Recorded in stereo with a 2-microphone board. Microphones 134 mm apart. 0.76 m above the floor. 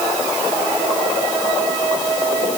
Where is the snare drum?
I don't hear a snare drum.